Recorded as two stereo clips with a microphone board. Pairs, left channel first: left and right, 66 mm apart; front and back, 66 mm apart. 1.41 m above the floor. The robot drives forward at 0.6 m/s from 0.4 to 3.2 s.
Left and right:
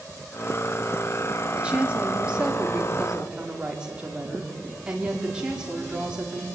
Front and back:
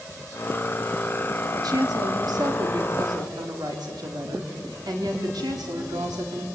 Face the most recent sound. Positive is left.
turn(degrees=-165)